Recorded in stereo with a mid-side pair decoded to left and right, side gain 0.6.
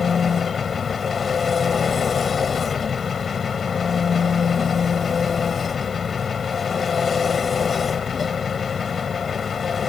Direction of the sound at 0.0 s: 30° left.